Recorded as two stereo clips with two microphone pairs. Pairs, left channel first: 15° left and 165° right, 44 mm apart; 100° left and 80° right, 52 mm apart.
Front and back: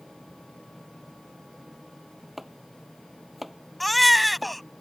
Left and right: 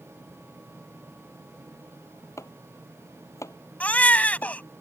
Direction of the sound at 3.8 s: 105° left.